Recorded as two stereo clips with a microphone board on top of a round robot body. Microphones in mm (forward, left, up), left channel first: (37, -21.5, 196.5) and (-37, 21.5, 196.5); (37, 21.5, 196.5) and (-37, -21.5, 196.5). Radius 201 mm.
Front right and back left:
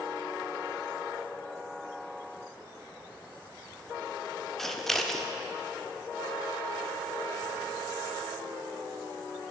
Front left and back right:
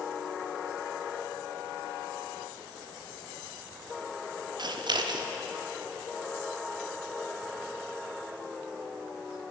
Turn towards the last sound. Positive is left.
turn(degrees=-115)